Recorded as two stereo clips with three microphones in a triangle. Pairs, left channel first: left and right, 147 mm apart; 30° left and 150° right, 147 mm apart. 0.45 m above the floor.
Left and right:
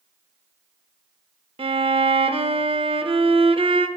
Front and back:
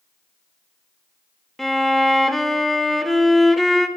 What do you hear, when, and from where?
1.6 s a violin: 60° right, 0.6 m